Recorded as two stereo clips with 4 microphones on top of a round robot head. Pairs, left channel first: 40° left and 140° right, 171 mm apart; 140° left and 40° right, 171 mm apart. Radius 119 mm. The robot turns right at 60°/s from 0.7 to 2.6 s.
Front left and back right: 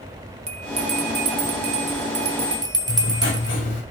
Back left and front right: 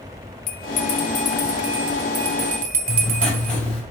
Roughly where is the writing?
Ahead left.